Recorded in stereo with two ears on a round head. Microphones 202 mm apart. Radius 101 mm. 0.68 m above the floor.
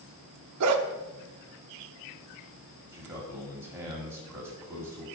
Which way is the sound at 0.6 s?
75° right (ahead or behind).